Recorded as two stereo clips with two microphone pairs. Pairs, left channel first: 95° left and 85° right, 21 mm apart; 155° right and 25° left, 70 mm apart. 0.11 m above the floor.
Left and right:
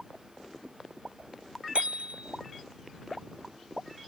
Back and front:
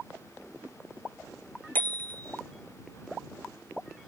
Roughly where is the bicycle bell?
Right.